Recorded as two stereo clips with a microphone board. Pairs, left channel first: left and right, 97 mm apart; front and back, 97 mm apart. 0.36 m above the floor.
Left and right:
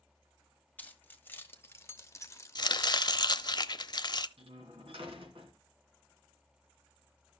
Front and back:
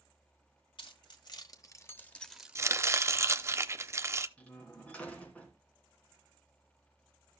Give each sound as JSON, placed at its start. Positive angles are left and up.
{"t": 0.8, "sound": "keys jangling", "azimuth_deg": 20, "distance_m": 1.6}
{"t": 2.5, "sound": "chopping", "azimuth_deg": 125, "distance_m": 0.6}
{"t": 4.4, "sound": "a door slam", "azimuth_deg": -75, "distance_m": 3.0}